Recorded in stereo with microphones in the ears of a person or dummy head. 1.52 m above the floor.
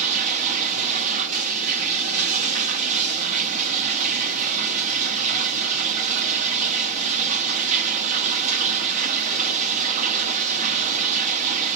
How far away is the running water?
About 0.9 m.